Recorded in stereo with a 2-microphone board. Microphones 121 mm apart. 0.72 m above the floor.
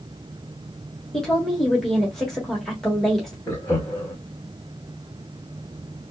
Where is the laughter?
30° left (ahead or behind), 0.9 m.